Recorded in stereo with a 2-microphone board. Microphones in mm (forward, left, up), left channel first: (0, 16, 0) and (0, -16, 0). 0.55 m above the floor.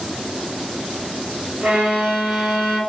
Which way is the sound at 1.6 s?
50° right (ahead or behind).